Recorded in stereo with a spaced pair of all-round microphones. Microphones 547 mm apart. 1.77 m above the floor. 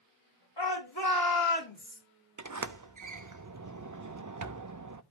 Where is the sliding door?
35° right (ahead or behind), 0.5 m.